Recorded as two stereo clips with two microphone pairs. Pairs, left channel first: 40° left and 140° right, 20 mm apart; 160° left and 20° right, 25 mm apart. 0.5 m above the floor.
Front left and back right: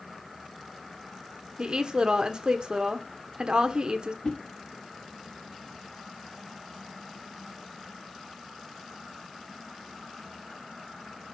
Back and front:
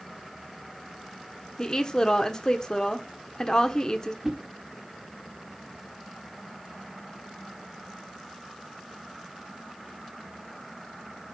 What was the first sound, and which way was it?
A woman speaking, 150° right.